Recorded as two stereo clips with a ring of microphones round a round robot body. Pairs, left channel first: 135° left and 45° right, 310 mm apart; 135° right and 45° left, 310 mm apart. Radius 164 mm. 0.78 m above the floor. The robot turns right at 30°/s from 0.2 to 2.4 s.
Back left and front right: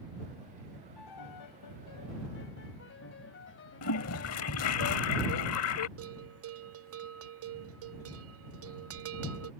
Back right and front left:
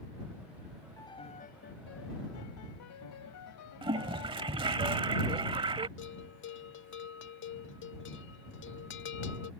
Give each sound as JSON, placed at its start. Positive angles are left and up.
{"t": 1.0, "sound": "a piano", "azimuth_deg": 145}
{"t": 3.8, "sound": "a toilet flushing", "azimuth_deg": 115}
{"t": 6.0, "sound": "a bell", "azimuth_deg": -85}